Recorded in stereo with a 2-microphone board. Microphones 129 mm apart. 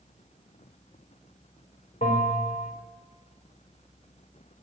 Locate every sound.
2.0 s a bell: 80° left, 4 m